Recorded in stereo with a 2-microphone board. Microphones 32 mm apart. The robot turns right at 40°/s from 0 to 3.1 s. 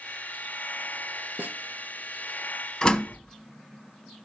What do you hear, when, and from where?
1.4 s a snare drum: 75° right (ahead or behind), 1.0 m; by 1.6 s 80° right, 1.0 m
2.8 s a door slam: 25° left (ahead or behind), 0.8 m